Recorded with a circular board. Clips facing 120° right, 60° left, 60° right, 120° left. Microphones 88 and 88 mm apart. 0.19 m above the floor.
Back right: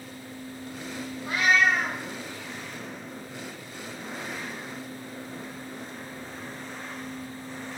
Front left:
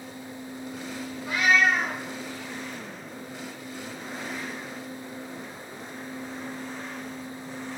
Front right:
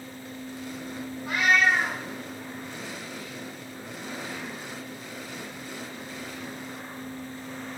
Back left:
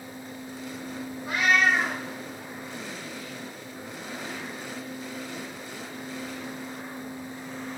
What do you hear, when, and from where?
1.2 s a cat meowing: 175° left, 1.9 m